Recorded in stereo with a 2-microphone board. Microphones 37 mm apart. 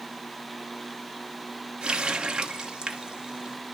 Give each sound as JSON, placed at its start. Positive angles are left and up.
{"t": 1.8, "sound": "a running tap", "side_deg": -25, "distance_m": 0.9}